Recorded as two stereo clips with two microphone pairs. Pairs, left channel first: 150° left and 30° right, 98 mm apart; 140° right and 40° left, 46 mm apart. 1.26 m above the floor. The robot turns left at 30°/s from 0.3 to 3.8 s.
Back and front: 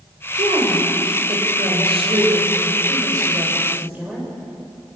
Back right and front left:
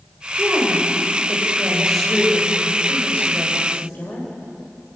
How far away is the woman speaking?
About 6.5 m.